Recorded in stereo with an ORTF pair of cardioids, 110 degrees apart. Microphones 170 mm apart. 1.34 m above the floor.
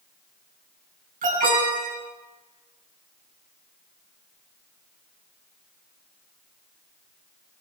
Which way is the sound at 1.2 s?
55° right.